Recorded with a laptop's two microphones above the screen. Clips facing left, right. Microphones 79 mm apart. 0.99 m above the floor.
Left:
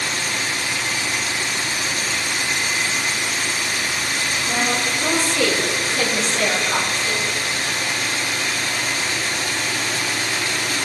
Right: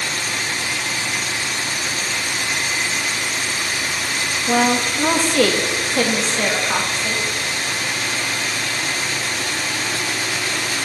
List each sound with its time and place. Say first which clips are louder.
4.5 s a woman speaking: right 7 dB; 70° right (ahead or behind), 1.0 m; by 7.2 s 40° right (ahead or behind), 2.0 m